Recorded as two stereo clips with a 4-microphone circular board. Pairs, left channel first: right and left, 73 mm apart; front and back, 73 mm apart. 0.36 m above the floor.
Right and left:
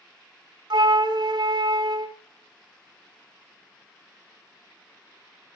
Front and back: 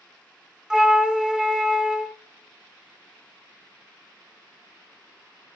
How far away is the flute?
About 0.7 m.